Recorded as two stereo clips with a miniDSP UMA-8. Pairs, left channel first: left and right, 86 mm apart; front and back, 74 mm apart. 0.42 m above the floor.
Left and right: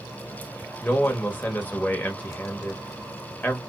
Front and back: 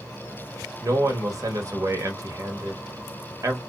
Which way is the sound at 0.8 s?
155° left.